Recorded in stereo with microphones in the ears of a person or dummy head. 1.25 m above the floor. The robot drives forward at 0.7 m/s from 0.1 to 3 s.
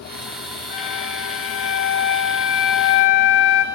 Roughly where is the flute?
Left.